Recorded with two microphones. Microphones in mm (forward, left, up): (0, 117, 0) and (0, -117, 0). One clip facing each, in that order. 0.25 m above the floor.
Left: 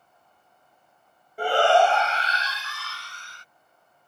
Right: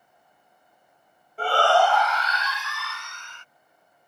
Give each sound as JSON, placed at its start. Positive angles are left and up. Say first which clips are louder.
{"t": 1.4, "sound": "a shout", "louder": "left 2 dB", "side_deg": 15}